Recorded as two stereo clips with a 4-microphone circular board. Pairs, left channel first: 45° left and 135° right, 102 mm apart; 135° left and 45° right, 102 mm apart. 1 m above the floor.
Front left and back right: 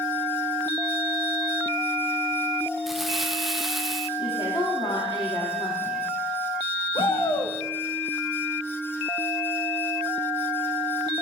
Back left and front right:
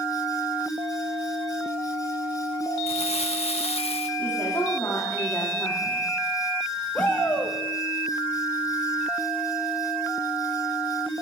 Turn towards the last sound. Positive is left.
turn(degrees=60)